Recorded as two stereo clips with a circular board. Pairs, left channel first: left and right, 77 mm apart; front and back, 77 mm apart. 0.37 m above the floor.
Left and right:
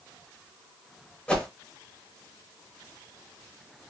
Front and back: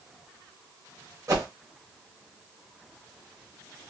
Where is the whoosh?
160° left, 0.8 m.